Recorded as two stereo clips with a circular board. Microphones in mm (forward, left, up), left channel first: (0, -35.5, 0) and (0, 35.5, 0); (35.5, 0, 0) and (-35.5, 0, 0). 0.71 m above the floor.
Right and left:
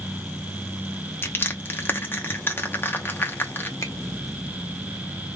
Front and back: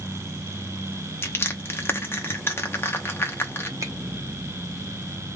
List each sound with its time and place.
1.2 s crushing: 40° right, 0.9 m
3.8 s a finger snap: 135° right, 1.2 m